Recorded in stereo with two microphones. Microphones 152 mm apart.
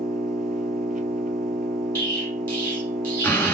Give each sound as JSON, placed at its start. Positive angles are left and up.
{"t": 0.0, "sound": "an engine running", "side_deg": -70, "distance_m": 0.9}
{"t": 1.9, "sound": "an explosion", "side_deg": 10, "distance_m": 1.4}